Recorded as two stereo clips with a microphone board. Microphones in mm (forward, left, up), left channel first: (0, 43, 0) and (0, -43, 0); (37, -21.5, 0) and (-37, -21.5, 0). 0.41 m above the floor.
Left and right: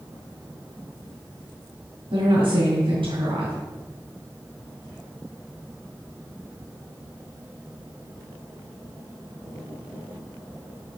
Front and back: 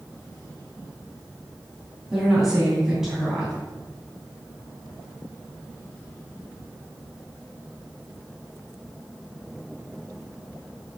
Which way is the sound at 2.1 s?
95° right.